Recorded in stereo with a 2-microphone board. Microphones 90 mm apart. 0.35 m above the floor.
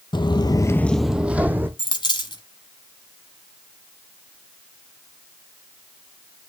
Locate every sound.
0.1 s footsteps: 65° left (ahead or behind), 0.7 m; by 1.7 s 25° right (ahead or behind), 1.2 m
1.8 s a dropped coin: 65° left (ahead or behind), 1.5 m